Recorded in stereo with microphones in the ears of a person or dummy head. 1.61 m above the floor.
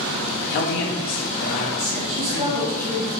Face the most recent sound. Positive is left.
turn(degrees=-35)  # may be behind; listen again after turning